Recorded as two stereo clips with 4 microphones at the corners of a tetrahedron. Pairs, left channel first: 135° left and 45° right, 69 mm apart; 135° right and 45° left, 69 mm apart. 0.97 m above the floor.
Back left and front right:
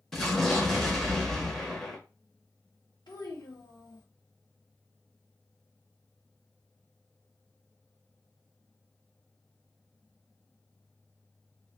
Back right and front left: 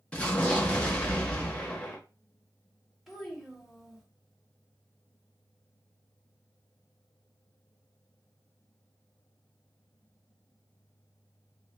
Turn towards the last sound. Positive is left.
turn(degrees=135)